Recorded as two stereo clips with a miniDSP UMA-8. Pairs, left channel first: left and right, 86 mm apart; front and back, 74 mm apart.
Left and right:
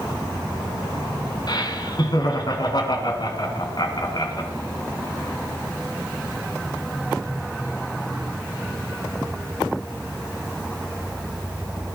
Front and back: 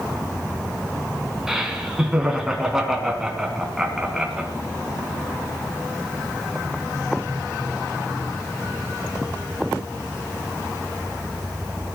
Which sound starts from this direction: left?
Laughter, at 1.5 s.